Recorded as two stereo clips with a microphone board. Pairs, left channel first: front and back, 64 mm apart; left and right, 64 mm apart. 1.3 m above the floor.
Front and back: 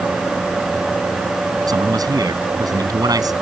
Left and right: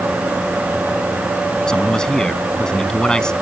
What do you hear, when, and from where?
1.7 s a man speaking: 170° left